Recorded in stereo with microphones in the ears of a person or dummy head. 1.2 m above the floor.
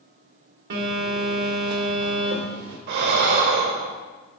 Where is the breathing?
60° right (ahead or behind), 0.8 m.